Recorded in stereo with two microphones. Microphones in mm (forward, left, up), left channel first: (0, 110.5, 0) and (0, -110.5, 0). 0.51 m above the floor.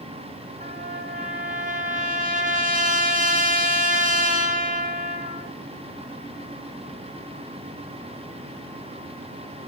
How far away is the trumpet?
About 3 m.